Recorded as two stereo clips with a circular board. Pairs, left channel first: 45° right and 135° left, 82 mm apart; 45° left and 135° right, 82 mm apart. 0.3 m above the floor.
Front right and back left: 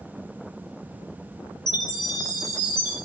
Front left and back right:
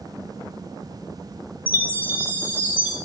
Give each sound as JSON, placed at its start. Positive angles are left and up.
{"t": 1.7, "sound": "a chime", "azimuth_deg": -65, "distance_m": 3.0}